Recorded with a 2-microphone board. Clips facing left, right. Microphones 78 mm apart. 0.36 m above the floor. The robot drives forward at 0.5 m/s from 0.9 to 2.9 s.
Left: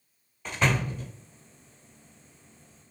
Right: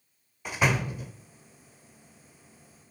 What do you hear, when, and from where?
0.5 s a door slam: 10° right (ahead or behind), 1.0 m